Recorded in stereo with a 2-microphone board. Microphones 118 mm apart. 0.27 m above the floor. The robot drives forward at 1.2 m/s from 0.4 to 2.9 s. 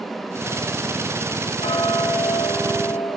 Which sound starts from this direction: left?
Ticking, at 1.6 s.